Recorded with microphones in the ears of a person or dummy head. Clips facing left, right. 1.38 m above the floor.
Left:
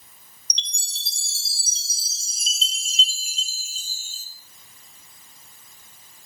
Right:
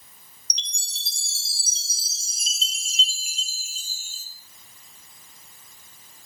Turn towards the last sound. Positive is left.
turn(degrees=30)  # may be behind; listen again after turning